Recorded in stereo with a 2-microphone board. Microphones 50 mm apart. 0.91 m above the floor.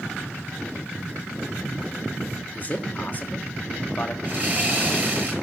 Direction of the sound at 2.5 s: 35° left (ahead or behind).